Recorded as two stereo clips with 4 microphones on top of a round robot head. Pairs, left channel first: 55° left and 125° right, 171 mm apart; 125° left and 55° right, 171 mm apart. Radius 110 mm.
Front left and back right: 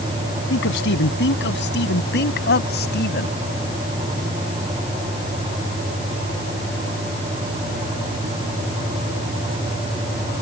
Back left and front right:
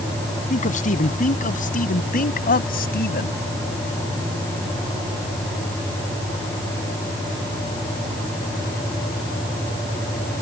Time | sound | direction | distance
0.5 | a man speaking | 75° left | ?